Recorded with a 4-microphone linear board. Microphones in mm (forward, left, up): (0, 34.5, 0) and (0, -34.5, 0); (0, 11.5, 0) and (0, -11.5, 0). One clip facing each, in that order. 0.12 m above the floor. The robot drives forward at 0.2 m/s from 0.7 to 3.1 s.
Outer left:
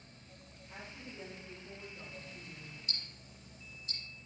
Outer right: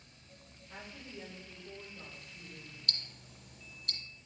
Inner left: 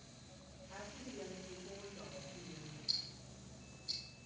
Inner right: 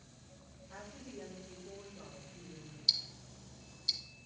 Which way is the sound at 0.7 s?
15° left (ahead or behind).